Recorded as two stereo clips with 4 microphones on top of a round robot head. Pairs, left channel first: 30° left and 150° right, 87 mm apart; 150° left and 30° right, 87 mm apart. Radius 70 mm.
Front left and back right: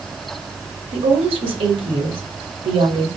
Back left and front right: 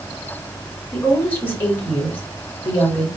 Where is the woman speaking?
140° right, 1.9 m.